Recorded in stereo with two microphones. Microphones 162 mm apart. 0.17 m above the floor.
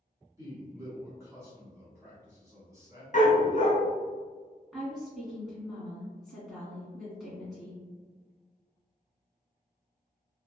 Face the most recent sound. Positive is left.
turn(degrees=0)  # may be behind; listen again after turning